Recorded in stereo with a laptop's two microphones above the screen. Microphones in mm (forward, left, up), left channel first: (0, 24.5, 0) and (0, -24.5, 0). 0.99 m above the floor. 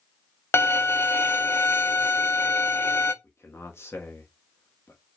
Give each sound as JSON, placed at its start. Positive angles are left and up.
{"t": 0.5, "sound": "a violin", "side_deg": 55, "distance_m": 0.6}
{"t": 3.2, "sound": "a man speaking", "side_deg": 60, "distance_m": 1.5}